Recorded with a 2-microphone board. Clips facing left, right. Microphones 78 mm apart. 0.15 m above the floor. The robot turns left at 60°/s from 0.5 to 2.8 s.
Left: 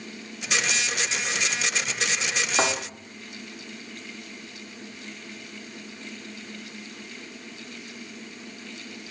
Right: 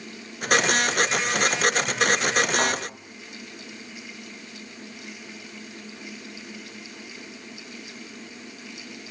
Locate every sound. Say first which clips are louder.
2.6 s a thud: even; 20° left (ahead or behind), 6 m; by 2.7 s 30° left (ahead or behind), 6 m